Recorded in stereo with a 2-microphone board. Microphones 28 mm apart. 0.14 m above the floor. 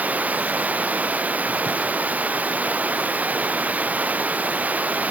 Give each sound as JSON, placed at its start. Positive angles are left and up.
{"t": 0.0, "sound": "running water", "side_deg": -70}